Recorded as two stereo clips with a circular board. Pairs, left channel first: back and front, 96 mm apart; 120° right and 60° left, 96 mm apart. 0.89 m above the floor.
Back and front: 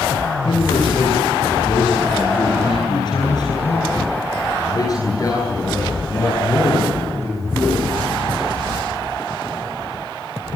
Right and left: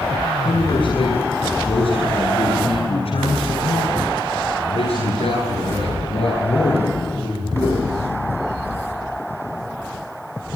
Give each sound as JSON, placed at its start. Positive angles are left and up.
{"t": 0.5, "sound": "a man speaking", "azimuth_deg": -155, "distance_m": 8.5}